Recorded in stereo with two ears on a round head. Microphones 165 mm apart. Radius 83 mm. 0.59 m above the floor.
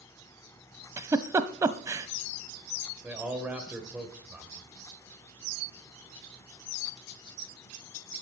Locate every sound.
1.0 s a giggle: 15° right (ahead or behind), 0.8 m
3.0 s a man speaking: 10° right (ahead or behind), 2.5 m